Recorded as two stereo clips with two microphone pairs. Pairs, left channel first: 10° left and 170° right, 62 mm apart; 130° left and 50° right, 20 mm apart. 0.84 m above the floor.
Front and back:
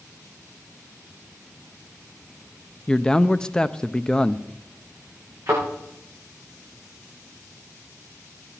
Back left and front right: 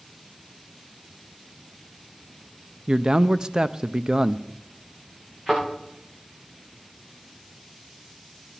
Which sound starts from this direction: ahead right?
A man speaking, at 2.9 s.